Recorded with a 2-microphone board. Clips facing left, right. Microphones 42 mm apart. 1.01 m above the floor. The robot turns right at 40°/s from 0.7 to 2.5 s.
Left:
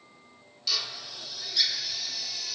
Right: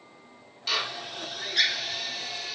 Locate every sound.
0.7 s a drill: 40° right (ahead or behind), 0.7 m; by 2.5 s 30° right (ahead or behind), 0.7 m